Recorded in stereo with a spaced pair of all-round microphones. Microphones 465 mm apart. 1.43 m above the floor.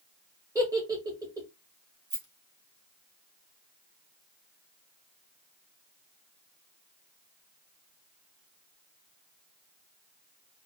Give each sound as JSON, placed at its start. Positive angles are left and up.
{"t": 0.6, "sound": "a giggle", "side_deg": -10, "distance_m": 0.9}
{"t": 2.1, "sound": "a rattle", "side_deg": -40, "distance_m": 0.8}